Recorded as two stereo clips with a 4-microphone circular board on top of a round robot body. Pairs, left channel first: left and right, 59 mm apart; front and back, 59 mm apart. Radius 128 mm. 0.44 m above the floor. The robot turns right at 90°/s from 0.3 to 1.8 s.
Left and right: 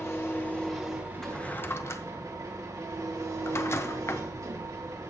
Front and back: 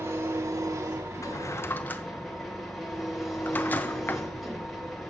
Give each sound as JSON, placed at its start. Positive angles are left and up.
{"t": 0.0, "sound": "an engine running", "azimuth_deg": 135, "distance_m": 2.5}
{"t": 1.2, "sound": "a drawer", "azimuth_deg": 5, "distance_m": 0.9}